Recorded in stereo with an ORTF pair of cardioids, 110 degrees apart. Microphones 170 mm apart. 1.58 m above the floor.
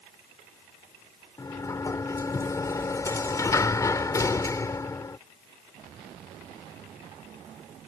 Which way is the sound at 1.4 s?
20° left.